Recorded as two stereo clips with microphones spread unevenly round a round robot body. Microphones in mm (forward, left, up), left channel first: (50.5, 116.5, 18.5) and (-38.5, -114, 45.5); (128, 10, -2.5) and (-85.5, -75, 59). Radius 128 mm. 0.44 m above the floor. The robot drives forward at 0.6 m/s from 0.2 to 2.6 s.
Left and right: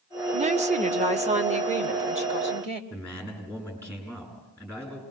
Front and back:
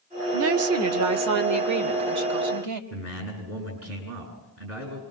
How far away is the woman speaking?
About 0.9 m.